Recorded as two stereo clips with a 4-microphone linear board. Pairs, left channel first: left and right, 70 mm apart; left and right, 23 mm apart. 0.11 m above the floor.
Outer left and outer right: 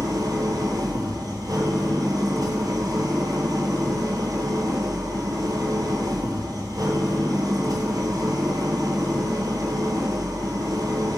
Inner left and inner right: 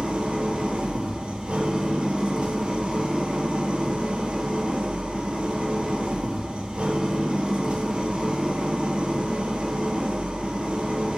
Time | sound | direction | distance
0.0 | an engine running | 65° right (ahead or behind) | 1.2 m